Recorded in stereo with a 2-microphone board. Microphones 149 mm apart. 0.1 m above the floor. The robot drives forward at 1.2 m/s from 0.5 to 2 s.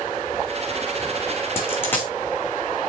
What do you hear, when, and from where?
1.6 s a dropped coin: 15° left (ahead or behind), 3.5 m